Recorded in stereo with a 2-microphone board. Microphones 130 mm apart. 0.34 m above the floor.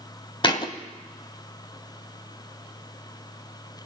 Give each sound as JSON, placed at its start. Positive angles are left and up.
{"t": 0.4, "sound": "a thud", "side_deg": 35, "distance_m": 0.8}